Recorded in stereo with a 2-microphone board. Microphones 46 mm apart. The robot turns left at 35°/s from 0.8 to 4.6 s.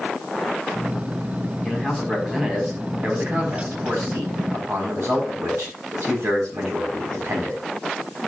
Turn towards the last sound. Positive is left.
turn(degrees=-90)